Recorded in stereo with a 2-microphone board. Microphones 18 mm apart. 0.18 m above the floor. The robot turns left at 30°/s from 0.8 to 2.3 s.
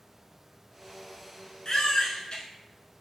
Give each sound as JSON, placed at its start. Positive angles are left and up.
{"t": 1.6, "sound": "a baby crying", "side_deg": 40, "distance_m": 0.7}